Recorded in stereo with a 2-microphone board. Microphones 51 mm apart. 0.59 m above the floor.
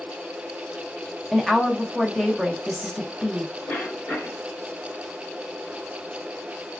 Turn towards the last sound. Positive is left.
turn(degrees=25)  # may be behind; listen again after turning